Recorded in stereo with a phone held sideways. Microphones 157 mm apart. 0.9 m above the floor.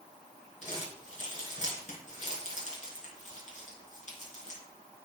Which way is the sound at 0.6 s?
50° left (ahead or behind).